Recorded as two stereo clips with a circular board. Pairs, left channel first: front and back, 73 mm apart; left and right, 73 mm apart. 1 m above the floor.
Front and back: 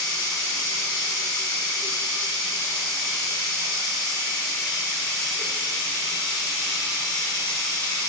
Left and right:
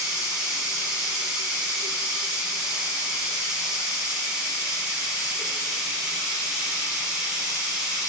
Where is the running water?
15° right, 1.2 m.